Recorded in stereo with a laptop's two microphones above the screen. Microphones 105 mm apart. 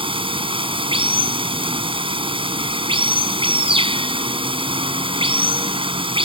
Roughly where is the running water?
Right.